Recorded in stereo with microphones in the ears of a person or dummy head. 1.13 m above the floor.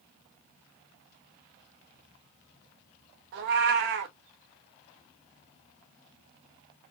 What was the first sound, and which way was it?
A cat meowing, 60° right (ahead or behind).